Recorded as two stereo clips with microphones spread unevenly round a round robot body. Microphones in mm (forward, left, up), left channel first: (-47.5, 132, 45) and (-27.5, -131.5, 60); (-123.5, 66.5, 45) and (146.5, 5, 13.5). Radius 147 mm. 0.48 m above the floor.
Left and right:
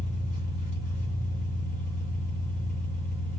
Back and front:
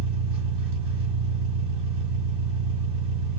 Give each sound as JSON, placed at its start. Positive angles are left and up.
{"t": 0.0, "sound": "an engine running", "azimuth_deg": 30, "distance_m": 1.7}